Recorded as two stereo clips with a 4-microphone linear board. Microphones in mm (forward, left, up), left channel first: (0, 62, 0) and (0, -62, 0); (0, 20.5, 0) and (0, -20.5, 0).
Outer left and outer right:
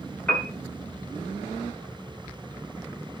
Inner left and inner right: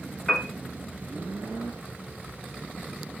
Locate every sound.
0.3 s a piano: 10° left (ahead or behind), 1.2 m